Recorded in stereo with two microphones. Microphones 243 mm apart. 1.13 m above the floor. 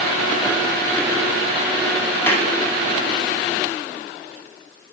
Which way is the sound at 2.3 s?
10° left (ahead or behind).